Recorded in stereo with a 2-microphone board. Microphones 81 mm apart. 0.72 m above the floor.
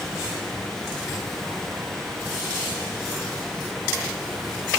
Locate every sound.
Only background noise.